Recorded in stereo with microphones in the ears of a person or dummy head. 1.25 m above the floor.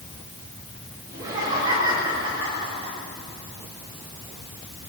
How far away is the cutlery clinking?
No cutlery clinking in this recording.